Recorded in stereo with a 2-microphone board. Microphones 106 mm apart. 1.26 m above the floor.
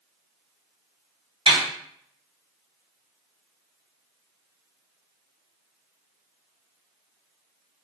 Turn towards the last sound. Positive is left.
turn(degrees=-50)  # may be behind; listen again after turning